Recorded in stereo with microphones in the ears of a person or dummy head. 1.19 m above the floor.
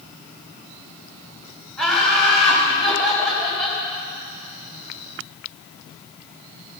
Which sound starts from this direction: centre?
Laughter, at 1.8 s.